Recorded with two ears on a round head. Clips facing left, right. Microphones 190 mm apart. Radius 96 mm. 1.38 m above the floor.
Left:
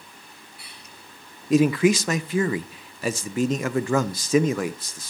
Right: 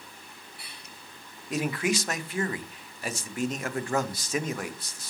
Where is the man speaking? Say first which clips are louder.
Left 10 dB; 65° left (ahead or behind), 0.9 m.